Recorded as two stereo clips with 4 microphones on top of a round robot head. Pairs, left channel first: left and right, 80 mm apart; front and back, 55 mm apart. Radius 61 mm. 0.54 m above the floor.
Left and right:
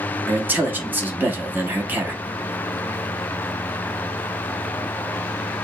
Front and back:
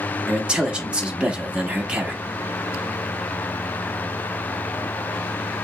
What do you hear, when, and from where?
0.3 s a man speaking: 130° right, 0.9 m